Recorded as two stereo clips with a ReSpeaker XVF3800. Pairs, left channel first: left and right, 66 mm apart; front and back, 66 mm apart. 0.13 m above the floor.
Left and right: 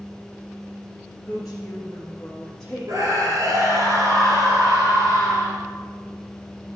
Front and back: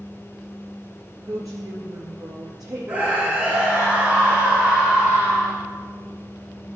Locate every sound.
1.2 s a woman speaking: 170° right, 2.5 m; by 3.6 s 175° left, 4.5 m
2.9 s a scream: 110° right, 2 m